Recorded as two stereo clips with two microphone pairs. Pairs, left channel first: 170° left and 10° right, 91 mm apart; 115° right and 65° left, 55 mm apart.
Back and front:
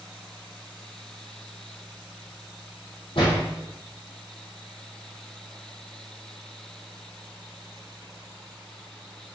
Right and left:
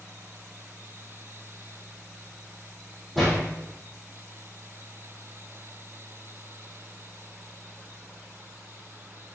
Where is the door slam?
155° left, 3.5 m.